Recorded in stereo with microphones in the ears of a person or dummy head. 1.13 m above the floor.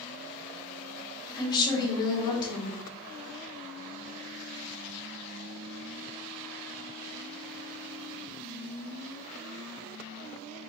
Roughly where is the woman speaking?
Left.